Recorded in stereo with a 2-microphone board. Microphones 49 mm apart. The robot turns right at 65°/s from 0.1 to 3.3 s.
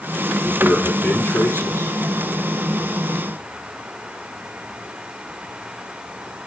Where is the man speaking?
Straight ahead, 8.5 m; by 2.0 s 100° left, 8.5 m.